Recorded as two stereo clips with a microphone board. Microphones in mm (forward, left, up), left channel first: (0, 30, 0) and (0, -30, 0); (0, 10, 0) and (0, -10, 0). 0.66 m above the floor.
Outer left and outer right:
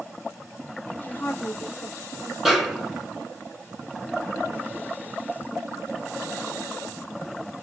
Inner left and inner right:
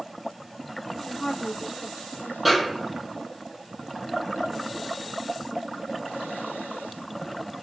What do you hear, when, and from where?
0.9 s a woman speaking: 40° left (ahead or behind), 1.1 m
2.5 s a snare drum: 5° right (ahead or behind), 1.2 m